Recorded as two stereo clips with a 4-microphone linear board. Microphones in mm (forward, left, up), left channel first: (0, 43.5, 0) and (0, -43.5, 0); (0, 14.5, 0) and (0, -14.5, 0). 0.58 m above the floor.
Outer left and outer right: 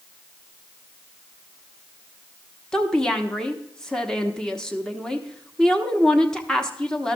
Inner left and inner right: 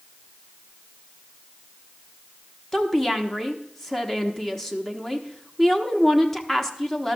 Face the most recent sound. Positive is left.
turn(degrees=10)  # may be behind; listen again after turning